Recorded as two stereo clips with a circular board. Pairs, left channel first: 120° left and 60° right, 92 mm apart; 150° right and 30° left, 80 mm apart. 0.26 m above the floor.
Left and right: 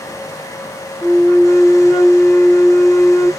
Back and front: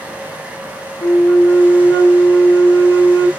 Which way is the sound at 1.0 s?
145° right.